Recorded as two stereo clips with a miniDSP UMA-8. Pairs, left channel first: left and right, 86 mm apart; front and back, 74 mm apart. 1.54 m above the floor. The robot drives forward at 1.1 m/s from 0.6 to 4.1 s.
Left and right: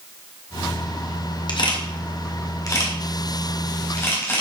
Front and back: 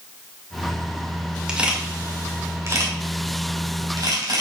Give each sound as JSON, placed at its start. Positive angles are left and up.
{"t": 1.5, "sound": "a camera shutter", "azimuth_deg": 100, "distance_m": 2.0}